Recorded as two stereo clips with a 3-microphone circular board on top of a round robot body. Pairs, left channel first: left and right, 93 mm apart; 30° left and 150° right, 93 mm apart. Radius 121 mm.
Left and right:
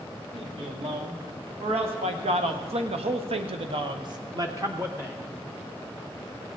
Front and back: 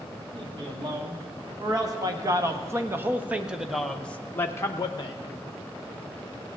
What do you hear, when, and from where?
0.3 s a man speaking: 110° right, 2.5 m; by 5.2 s 15° right, 1.1 m